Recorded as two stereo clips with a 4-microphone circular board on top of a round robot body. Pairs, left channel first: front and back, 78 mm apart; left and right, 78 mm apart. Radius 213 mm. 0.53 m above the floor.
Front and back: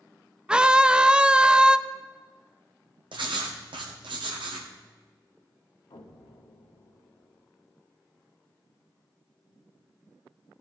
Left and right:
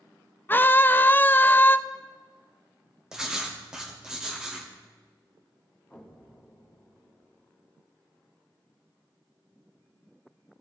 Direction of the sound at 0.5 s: 115° left.